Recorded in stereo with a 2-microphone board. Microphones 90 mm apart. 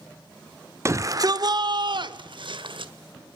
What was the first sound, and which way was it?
A shout, 30° right (ahead or behind).